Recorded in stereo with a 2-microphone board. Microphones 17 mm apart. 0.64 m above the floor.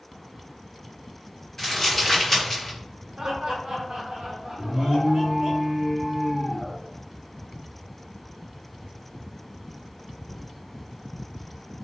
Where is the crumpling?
20° left (ahead or behind), 2.0 m.